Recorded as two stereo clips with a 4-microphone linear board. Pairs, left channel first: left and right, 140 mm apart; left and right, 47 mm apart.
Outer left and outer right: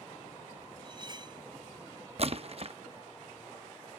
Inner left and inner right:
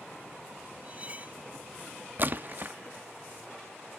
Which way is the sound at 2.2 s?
45° right (ahead or behind).